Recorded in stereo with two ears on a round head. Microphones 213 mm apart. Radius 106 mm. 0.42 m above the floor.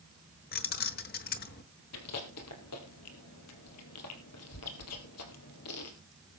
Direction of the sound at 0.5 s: 40° left (ahead or behind).